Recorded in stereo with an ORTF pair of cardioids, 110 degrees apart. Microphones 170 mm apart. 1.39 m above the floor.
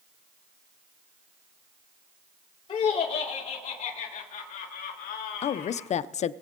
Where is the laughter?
35° left, 3.5 m; by 5.9 s 75° left, 2.5 m.